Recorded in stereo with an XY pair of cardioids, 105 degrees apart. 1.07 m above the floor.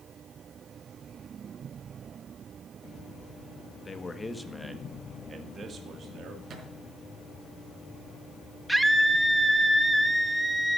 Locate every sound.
3.9 s a man speaking: 35° left, 1.8 m; by 6.4 s 55° right, 2.5 m
6.5 s a thud: 50° right, 4.5 m
8.7 s a scream: 5° right, 1.4 m